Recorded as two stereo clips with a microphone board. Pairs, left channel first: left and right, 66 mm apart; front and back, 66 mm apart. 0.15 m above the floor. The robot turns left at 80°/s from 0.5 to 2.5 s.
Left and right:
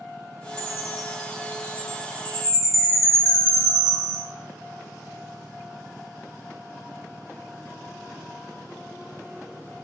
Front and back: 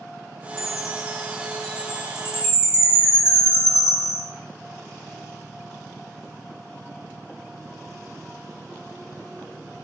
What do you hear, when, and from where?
0.6 s a chime: 165° left, 1.8 m; by 4.2 s 10° left, 1.8 m